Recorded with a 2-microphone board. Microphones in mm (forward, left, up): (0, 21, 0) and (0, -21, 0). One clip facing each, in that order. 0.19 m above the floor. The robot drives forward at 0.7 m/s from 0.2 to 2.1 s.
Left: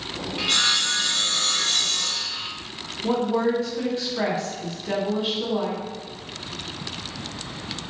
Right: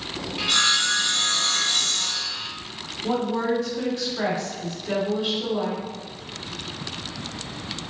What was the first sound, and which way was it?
Sawing, centre (ahead or behind).